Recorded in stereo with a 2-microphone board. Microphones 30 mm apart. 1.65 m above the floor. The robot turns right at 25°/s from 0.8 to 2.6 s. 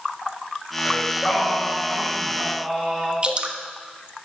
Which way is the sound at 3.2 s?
35° right (ahead or behind).